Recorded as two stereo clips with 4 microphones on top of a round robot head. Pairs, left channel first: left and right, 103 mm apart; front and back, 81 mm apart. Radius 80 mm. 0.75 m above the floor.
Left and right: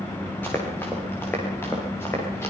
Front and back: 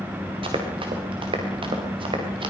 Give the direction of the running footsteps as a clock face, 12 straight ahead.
6 o'clock.